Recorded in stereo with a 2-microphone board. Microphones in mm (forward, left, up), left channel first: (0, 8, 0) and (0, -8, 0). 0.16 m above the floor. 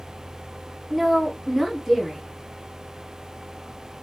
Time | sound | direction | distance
0.9 | a woman speaking | 5° right (ahead or behind) | 1.5 m